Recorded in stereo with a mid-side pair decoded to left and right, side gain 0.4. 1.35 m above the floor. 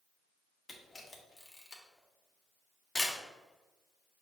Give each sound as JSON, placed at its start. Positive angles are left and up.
{"t": 0.7, "sound": "a camera shutter", "azimuth_deg": 25, "distance_m": 1.1}